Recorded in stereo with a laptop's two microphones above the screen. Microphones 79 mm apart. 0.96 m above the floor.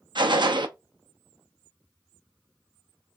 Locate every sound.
0.1 s a gunshot: 70° right (ahead or behind), 0.5 m